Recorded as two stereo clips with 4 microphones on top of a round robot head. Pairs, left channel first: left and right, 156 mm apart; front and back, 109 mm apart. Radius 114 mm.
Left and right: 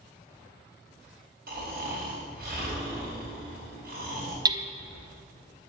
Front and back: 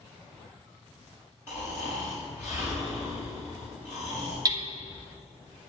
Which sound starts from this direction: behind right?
Hammering, at 4.5 s.